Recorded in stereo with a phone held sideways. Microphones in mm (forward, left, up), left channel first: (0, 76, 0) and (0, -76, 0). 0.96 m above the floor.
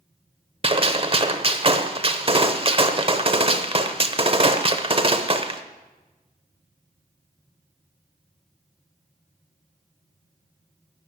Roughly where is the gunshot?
Right.